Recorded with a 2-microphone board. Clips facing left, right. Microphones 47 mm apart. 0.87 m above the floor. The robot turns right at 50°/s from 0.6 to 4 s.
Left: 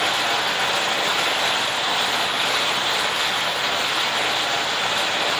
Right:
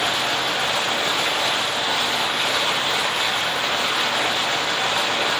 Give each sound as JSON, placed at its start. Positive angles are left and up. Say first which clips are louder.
{"t": 0.0, "sound": "running water", "louder": "left 1 dB", "azimuth_deg": 90, "distance_m": 0.8}